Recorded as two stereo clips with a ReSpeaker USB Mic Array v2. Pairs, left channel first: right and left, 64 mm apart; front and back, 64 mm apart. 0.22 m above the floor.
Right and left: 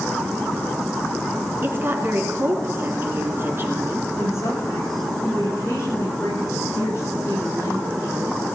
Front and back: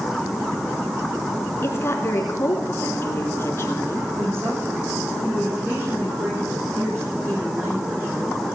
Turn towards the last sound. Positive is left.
turn(degrees=-130)